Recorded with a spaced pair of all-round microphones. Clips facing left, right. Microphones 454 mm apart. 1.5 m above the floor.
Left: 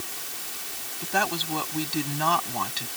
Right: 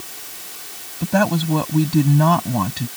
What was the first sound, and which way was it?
A woman speaking, 80° right.